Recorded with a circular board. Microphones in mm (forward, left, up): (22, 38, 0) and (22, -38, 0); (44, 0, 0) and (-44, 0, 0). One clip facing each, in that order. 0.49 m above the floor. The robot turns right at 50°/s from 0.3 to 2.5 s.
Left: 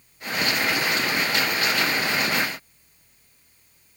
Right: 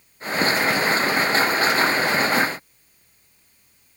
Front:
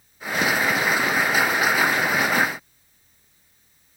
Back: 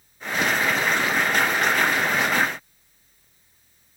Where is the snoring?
No snoring in this recording.